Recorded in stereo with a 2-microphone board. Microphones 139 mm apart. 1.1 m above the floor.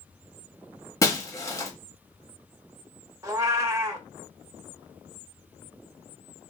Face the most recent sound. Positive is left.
turn(degrees=-25)  # may be behind; listen again after turning